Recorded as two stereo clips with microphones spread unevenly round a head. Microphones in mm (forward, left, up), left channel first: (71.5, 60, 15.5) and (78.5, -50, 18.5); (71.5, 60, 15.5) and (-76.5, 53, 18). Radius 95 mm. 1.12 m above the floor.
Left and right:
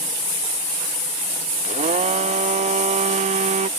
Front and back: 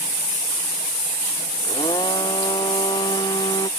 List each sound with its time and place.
1.6 s a blender: 70° right